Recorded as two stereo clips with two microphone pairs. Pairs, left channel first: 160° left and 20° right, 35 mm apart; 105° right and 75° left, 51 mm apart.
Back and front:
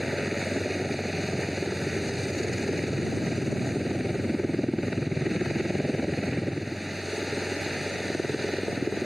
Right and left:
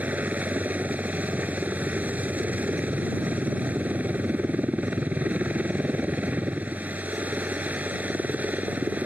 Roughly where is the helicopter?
Ahead left.